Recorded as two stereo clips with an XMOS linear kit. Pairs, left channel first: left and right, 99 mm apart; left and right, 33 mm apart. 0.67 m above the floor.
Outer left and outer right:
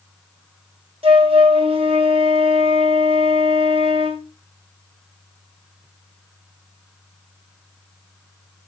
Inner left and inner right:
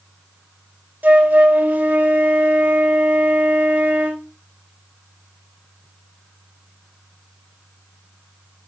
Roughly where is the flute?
Right.